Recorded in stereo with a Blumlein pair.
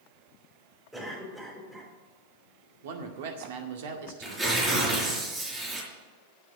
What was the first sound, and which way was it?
A cough, 10° right.